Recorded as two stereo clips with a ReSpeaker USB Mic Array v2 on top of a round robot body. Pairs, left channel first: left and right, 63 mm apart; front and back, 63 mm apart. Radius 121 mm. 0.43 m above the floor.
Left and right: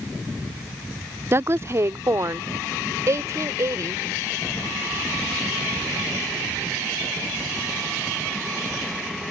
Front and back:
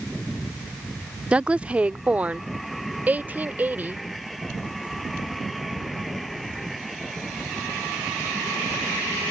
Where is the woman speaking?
115° right; by 4.0 s 120° right.